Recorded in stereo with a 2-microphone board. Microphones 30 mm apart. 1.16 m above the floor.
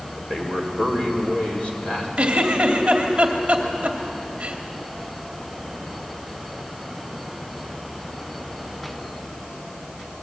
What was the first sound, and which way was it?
A man speaking, 30° left (ahead or behind).